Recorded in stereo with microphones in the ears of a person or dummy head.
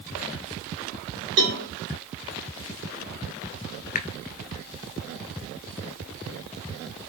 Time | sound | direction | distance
1.4 | a cowbell | 85° right | 1.8 m
4.0 | a finger snap | 45° left (ahead or behind) | 0.5 m